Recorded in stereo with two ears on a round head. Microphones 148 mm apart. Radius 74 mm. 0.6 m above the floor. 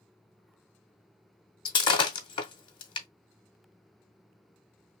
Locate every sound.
1.6 s breaking glass: 30° left (ahead or behind), 0.7 m